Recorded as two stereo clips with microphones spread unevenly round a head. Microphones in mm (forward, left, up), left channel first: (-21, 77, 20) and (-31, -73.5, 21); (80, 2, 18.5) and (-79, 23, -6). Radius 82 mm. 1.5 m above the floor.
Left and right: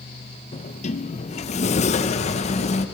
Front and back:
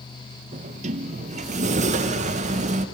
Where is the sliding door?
125° left, 0.9 m.